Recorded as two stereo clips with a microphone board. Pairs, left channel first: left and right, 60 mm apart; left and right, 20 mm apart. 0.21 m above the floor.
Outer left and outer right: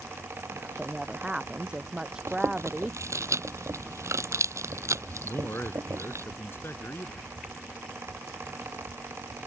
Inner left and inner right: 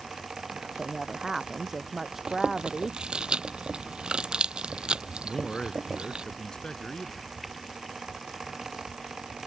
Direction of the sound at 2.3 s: 60° right (ahead or behind).